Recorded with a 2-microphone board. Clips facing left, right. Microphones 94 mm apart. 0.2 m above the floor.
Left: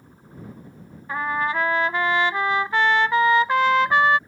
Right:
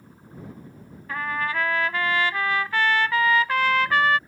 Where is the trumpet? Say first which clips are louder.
Left 3 dB; 20° left (ahead or behind).